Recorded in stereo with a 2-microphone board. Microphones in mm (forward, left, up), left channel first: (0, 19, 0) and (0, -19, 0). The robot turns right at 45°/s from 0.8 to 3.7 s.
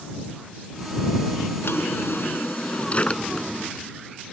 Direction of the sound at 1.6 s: 90° left.